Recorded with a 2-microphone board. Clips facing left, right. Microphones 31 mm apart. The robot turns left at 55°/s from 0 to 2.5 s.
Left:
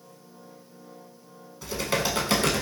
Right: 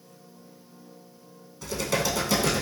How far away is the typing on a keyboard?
About 0.8 m.